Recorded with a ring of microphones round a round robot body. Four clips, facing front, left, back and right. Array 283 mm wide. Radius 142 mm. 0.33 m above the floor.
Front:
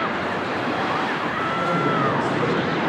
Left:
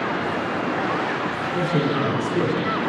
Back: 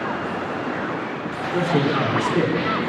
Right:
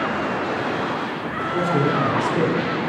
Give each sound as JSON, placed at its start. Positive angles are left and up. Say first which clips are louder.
{"t": 1.5, "sound": "a man speaking", "louder": "right 3 dB, back 3 dB", "azimuth_deg": -160, "distance_m": 3.0}